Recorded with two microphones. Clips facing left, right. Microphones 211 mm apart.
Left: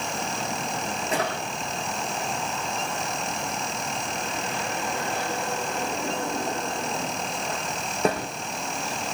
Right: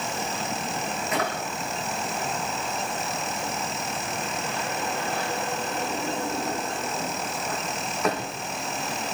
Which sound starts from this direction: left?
A drawer, at 1.1 s.